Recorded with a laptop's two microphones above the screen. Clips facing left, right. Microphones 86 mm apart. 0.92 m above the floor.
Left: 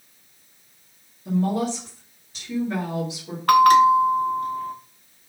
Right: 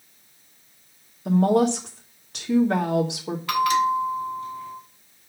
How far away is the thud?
No thud in this recording.